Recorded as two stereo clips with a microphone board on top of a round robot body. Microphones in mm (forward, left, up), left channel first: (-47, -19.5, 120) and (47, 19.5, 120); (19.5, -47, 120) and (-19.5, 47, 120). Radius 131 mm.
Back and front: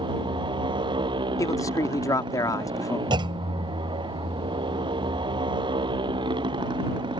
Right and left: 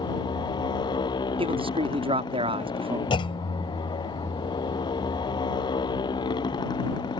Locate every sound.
0.0 s a motorcycle: 20° right
1.4 s a man speaking: 145° left
3.1 s a clunk: 25° right